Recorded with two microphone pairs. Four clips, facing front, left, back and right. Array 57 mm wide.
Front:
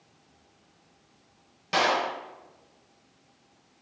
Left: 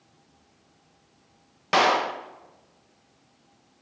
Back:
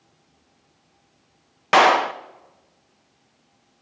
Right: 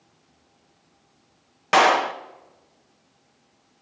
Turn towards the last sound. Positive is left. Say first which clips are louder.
# right 4 dB, back 10 dB
turn(degrees=-160)